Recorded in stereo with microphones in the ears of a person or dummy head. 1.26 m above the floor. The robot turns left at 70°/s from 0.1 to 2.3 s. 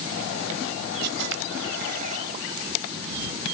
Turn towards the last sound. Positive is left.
turn(degrees=-155)